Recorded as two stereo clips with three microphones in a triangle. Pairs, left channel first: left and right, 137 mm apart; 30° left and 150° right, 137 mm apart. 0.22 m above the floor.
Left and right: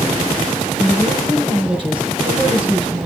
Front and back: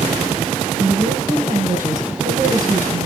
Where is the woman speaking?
145° right, 3 m.